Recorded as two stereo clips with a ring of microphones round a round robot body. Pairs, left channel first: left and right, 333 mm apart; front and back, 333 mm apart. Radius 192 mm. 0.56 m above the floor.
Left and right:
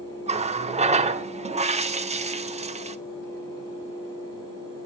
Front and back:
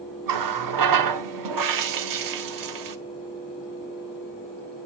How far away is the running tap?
About 1.0 m.